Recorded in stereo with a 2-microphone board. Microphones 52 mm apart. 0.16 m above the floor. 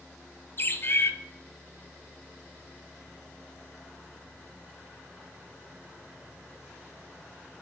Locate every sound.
0.6 s a bird: 45° left (ahead or behind), 0.6 m